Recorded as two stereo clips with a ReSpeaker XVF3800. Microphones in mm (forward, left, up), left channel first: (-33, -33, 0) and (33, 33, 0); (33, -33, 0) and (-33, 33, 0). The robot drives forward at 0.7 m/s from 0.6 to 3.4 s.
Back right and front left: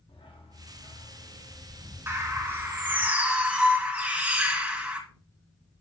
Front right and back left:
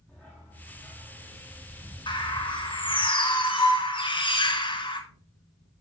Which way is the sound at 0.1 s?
115° right.